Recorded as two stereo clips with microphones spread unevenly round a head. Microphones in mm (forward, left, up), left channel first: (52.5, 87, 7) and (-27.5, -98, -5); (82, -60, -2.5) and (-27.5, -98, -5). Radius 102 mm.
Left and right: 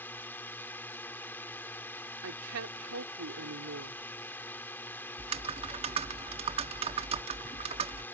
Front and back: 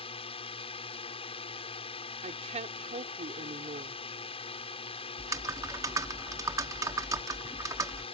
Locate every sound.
0.0 s a drone: 15° right
2.2 s a woman speaking: 140° right
5.2 s typing on a keyboard: 140° right